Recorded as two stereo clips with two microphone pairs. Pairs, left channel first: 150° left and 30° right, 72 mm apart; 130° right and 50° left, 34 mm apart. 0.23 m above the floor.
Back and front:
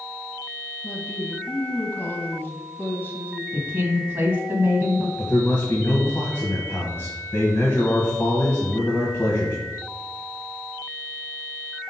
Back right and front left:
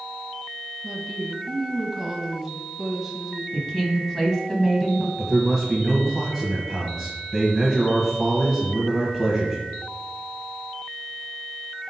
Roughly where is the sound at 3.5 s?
Ahead right.